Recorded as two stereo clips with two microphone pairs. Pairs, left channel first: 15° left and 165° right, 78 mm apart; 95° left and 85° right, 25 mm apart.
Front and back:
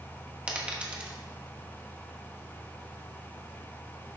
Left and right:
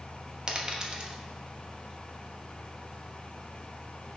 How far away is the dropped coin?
About 1.0 m.